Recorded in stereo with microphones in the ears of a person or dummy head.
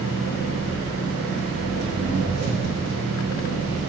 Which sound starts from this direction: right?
An engine running, at 0.0 s.